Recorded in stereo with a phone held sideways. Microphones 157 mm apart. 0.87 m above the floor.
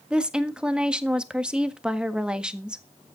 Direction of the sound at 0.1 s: 5° right (ahead or behind).